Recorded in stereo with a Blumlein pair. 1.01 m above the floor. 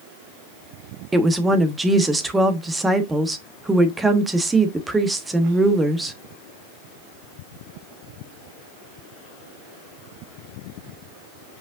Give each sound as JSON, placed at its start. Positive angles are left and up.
{"t": 1.1, "sound": "a woman speaking", "azimuth_deg": -10, "distance_m": 1.3}